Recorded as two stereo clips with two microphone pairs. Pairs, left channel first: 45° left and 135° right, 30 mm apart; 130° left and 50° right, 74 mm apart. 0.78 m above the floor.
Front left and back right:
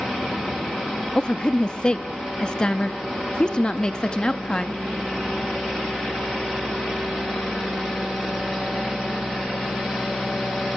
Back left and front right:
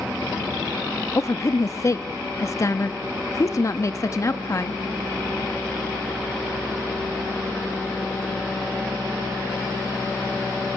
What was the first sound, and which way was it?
A woman speaking, 100° left.